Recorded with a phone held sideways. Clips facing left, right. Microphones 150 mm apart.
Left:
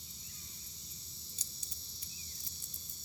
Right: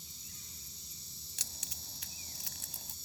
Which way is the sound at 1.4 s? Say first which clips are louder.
Right 4 dB; 80° right.